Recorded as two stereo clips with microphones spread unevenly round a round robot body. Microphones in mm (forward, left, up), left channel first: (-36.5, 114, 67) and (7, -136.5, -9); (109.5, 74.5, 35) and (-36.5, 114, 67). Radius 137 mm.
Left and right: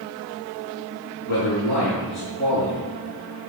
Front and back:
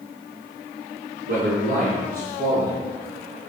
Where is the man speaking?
150° left, 5.5 m.